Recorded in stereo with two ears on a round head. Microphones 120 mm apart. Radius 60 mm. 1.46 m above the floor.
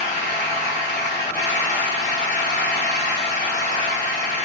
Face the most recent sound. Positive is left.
turn(degrees=65)  # may be behind; listen again after turning